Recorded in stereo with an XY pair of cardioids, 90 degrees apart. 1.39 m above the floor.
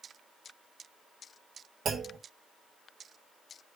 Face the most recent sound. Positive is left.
turn(degrees=-60)